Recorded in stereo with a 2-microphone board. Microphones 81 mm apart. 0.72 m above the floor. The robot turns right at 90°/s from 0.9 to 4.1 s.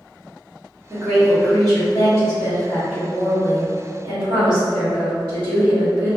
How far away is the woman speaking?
About 1.4 m.